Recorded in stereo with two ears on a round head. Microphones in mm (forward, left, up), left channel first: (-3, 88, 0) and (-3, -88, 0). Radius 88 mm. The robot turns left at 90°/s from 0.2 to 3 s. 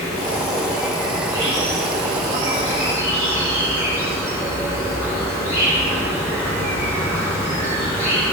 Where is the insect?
85° left, 3 m; by 8.3 s 165° right, 3 m.